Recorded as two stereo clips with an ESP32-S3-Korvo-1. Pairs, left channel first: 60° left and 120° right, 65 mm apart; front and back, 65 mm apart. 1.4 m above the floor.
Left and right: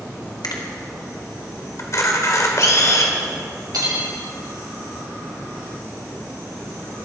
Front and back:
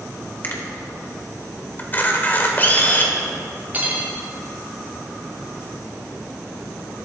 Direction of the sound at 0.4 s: 55° left.